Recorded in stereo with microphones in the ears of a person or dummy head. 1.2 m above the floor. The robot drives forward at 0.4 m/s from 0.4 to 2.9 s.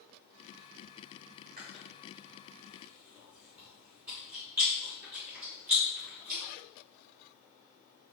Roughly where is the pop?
No pop in this recording.